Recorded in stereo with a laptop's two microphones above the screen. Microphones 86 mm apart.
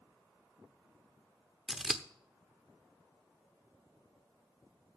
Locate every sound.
1.7 s scissors: 5° right (ahead or behind), 0.9 m